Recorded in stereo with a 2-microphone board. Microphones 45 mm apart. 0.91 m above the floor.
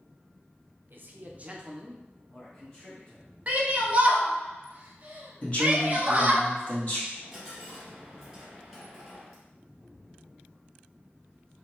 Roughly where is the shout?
Right.